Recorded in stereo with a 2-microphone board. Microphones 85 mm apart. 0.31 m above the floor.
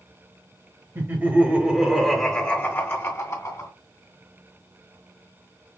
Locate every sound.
0.9 s laughter: 35° right (ahead or behind), 1.3 m; by 3.7 s 50° left (ahead or behind), 1.8 m